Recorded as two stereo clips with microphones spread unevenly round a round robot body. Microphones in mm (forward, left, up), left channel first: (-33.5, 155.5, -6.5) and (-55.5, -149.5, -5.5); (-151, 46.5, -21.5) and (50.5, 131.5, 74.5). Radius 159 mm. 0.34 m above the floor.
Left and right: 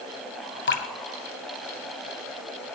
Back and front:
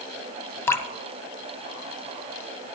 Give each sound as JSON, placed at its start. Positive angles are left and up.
{"t": 0.7, "sound": "dripping", "azimuth_deg": 135, "distance_m": 1.3}